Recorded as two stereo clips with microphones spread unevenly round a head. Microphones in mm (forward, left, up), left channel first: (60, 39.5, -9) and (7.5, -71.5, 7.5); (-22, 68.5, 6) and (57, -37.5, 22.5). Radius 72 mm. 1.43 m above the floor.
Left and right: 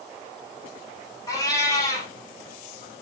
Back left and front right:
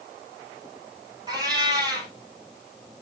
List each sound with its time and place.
1.3 s a cat meowing: straight ahead, 3 m